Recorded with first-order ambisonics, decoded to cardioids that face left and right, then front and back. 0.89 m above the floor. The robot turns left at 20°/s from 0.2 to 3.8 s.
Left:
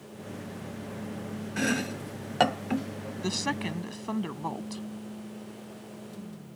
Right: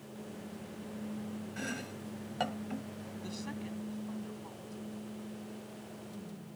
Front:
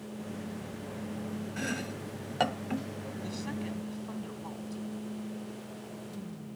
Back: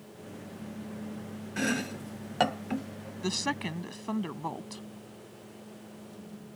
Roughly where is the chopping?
Behind left.